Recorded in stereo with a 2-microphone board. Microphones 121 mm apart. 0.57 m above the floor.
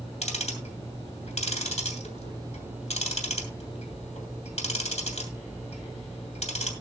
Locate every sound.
0.2 s ticking: 65° left (ahead or behind), 2.5 m